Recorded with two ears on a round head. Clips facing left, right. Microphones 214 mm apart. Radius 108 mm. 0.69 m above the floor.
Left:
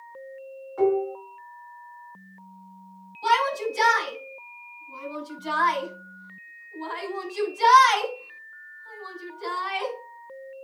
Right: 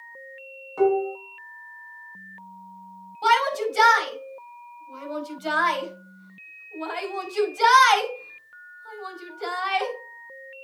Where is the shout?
75° right (ahead or behind), 4.5 m.